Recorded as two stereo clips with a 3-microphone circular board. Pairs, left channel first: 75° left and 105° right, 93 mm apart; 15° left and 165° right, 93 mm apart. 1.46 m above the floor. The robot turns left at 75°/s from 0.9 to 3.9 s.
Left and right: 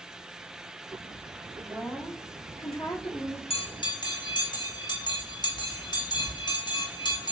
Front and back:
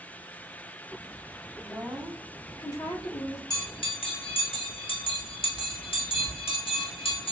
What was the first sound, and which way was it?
A woman speaking, 145° left.